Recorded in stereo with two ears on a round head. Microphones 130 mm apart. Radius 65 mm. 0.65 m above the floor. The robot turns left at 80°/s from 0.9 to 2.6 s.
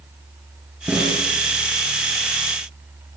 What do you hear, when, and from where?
0.9 s a snare drum: 10° right (ahead or behind), 7.5 m; by 1.2 s 15° left (ahead or behind), 7.5 m